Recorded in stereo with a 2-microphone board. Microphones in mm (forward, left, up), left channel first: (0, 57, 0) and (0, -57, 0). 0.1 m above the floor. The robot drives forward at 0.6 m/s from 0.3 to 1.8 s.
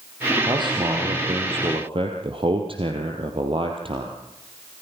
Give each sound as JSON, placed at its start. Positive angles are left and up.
{"t": 0.5, "sound": "a man speaking", "side_deg": -40, "distance_m": 3.0}